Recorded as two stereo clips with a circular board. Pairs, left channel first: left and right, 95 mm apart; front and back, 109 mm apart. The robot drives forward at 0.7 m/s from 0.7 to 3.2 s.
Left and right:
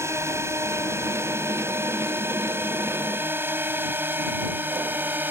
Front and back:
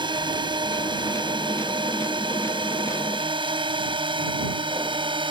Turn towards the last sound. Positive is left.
turn(degrees=-155)